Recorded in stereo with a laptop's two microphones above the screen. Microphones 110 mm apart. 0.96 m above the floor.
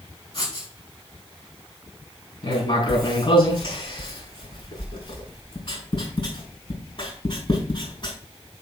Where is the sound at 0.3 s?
55° left (ahead or behind), 5.5 m.